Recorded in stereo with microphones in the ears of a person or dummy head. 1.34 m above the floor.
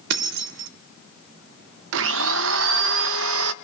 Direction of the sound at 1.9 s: 65° right (ahead or behind).